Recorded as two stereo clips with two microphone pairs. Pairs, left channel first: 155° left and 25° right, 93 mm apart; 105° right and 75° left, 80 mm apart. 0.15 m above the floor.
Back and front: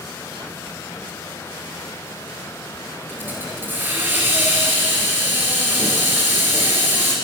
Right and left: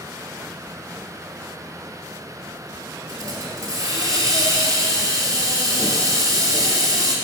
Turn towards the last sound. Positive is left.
turn(degrees=40)